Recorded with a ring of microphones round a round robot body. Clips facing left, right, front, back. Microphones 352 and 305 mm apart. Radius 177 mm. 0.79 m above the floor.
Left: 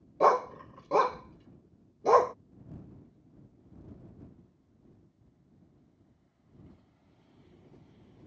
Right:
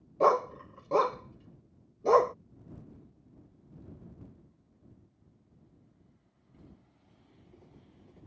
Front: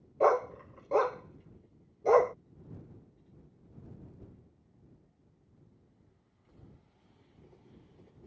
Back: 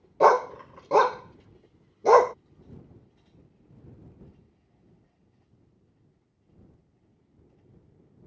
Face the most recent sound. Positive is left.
turn(degrees=175)